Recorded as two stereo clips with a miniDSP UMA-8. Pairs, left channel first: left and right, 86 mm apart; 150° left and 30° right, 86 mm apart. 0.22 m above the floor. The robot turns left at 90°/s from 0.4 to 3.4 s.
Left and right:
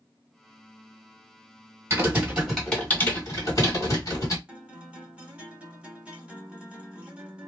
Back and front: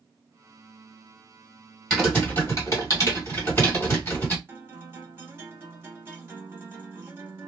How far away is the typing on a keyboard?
About 1.7 m.